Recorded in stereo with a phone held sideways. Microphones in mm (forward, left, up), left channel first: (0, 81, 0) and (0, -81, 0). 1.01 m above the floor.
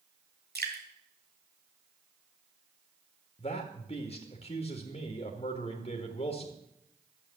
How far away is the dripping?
About 2.0 m.